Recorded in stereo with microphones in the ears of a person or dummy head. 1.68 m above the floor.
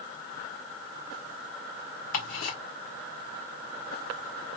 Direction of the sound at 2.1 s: 50° left (ahead or behind).